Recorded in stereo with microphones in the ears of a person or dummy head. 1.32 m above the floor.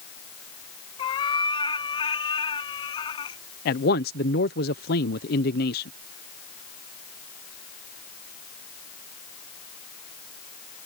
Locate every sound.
1.0 s a cat meowing: 20° left (ahead or behind)
3.6 s a man speaking: 50° left (ahead or behind)